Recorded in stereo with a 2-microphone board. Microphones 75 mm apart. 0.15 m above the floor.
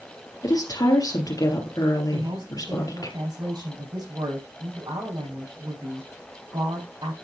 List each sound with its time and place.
0.4 s a woman speaking: 50° left (ahead or behind), 3.5 m
2.1 s a woman speaking: 65° right (ahead or behind), 6 m